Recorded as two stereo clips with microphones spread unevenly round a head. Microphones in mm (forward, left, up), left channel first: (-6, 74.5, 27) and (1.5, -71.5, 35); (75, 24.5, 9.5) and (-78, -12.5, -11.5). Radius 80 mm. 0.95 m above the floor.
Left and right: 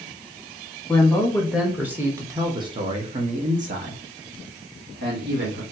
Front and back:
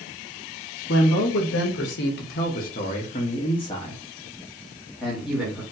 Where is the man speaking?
15° left, 1.5 m; by 5.6 s 80° right, 1.9 m.